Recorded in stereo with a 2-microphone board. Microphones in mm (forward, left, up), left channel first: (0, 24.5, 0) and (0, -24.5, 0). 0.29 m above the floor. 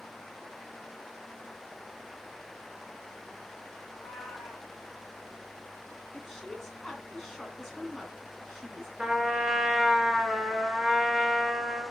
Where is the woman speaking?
5° left (ahead or behind), 3 m.